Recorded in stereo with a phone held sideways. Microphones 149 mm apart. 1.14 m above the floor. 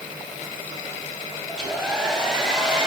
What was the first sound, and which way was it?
A hair dryer, 5° right (ahead or behind).